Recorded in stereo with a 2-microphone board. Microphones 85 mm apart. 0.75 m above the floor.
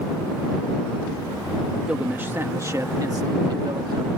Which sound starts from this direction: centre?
A man speaking, at 1.9 s.